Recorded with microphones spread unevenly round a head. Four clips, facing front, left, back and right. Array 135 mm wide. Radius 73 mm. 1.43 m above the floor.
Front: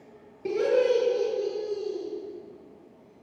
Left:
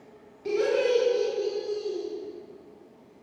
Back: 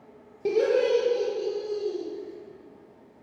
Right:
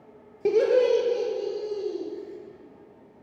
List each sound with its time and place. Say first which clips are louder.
0.5 s laughter: right 4 dB, back 1 dB; 110° right, 1.2 m; by 2.0 s 105° right, 3 m